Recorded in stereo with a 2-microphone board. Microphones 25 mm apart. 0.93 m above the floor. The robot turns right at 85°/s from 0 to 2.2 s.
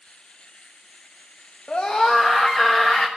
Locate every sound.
1.7 s a scream: 115° left, 1.3 m; by 3.1 s 160° left, 1.3 m